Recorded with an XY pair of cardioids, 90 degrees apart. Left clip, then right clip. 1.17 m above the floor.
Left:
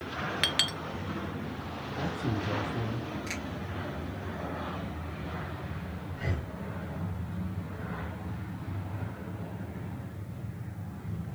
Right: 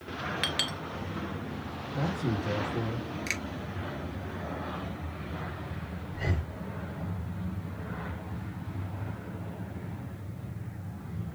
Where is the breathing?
45° right, 4.5 m.